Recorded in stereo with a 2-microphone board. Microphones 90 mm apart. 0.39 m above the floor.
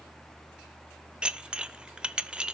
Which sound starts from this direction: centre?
Dishes clattering, at 1.2 s.